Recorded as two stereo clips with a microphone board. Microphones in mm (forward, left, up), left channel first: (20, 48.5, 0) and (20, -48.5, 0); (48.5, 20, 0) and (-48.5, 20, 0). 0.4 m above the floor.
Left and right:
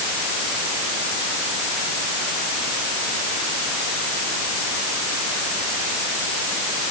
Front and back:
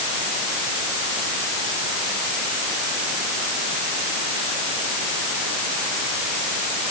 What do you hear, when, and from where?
Only background noise.